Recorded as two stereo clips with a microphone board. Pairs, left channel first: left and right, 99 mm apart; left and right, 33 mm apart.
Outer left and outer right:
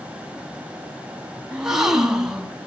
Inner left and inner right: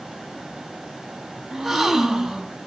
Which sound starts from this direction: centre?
A gasp, at 1.5 s.